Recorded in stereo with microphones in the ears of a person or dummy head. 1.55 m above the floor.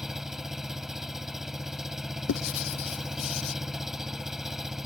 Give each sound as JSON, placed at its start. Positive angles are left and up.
{"t": 0.0, "sound": "an engine running", "side_deg": 0}
{"t": 2.3, "sound": "writing", "side_deg": 75}